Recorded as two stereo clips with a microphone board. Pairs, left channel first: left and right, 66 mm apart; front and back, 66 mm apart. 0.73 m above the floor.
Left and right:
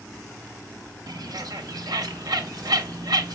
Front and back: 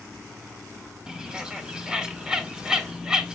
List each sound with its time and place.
1.1 s a bird: 100° right, 0.6 m